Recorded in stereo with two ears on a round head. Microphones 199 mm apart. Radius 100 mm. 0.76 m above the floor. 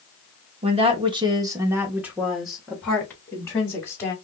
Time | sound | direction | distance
0.6 | a woman speaking | 25° right (ahead or behind) | 1.0 m